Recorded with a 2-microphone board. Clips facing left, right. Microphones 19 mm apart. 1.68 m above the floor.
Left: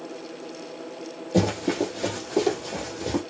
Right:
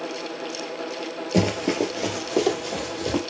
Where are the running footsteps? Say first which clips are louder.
Right 1 dB; 35° right (ahead or behind), 2.0 m.